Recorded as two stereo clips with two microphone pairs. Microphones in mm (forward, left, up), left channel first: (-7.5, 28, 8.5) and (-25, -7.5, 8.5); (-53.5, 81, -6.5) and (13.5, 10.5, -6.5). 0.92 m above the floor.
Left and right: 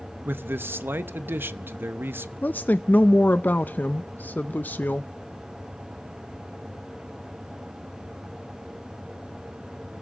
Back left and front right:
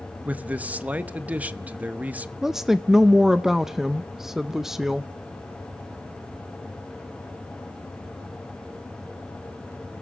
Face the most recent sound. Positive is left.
turn(degrees=45)